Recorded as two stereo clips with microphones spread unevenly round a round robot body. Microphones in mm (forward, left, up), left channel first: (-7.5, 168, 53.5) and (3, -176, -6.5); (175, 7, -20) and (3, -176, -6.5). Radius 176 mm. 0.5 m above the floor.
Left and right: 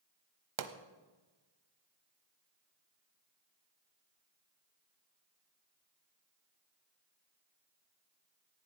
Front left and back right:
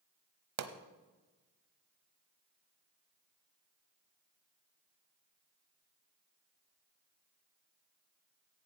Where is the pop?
125° right, 0.9 m.